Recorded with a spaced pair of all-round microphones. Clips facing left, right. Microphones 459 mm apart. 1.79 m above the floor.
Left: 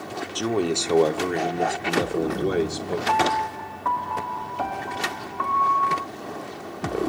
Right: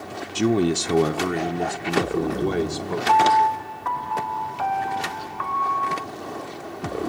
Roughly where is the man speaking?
Right.